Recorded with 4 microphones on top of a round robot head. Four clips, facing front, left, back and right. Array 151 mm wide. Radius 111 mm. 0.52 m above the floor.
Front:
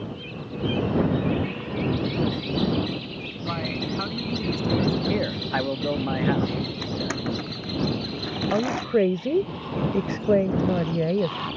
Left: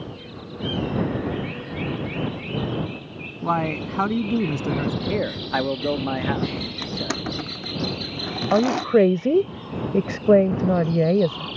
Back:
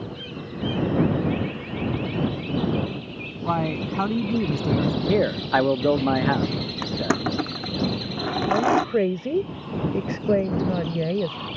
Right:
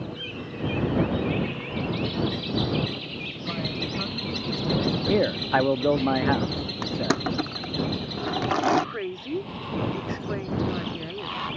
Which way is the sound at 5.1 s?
160° right.